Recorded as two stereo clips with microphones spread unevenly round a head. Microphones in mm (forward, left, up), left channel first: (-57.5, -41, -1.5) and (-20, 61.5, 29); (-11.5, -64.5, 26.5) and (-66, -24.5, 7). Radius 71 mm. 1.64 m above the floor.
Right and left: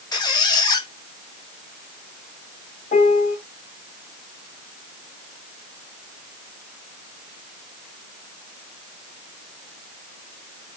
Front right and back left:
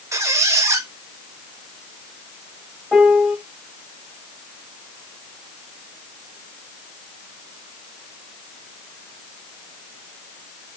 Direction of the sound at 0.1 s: 165° right.